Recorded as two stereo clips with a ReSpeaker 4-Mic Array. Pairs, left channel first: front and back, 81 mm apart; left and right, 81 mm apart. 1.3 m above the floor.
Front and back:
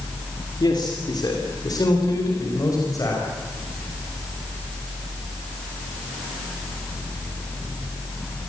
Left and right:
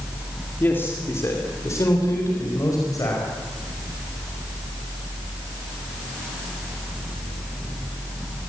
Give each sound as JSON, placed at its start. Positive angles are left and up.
{"t": 0.6, "sound": "a man speaking", "azimuth_deg": 25, "distance_m": 2.5}